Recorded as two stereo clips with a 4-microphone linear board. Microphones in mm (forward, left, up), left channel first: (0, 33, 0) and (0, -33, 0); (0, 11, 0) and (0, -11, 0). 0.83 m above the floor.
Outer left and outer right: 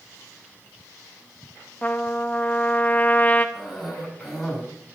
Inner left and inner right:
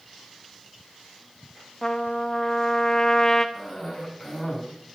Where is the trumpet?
25° left (ahead or behind), 0.9 m.